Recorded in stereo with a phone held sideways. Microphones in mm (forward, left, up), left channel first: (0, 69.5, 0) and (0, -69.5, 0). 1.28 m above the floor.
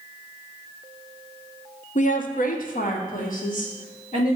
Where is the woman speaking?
65° left (ahead or behind), 0.6 m.